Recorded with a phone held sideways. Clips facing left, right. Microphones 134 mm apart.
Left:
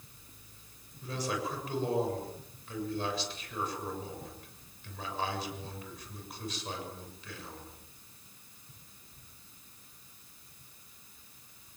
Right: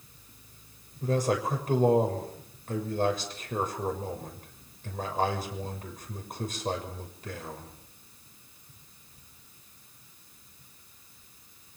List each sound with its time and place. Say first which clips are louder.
1.0 s a man speaking: right 8 dB; 45° right (ahead or behind), 6.5 m